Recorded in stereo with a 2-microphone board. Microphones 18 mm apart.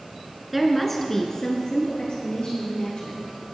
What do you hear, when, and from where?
0.5 s a woman speaking: 10° right (ahead or behind), 1.5 m; by 3.2 s 60° left (ahead or behind), 3.5 m